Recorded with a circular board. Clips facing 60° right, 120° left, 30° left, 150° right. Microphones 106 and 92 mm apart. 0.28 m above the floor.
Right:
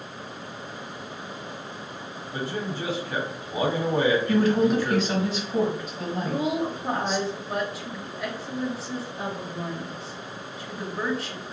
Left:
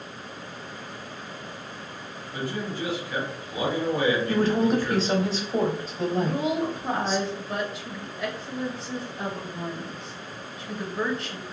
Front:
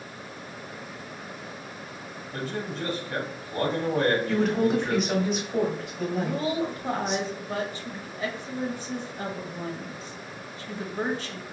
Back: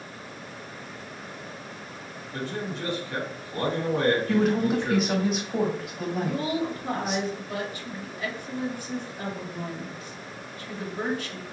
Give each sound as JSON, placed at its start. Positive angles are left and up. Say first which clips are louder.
{"t": 2.3, "sound": "a man speaking", "louder": "even, even", "azimuth_deg": -10, "distance_m": 1.5}
{"t": 4.3, "sound": "a woman speaking", "louder": "right 1 dB, even", "azimuth_deg": 125, "distance_m": 1.2}
{"t": 6.2, "sound": "a woman speaking", "louder": "even, even", "azimuth_deg": 25, "distance_m": 1.0}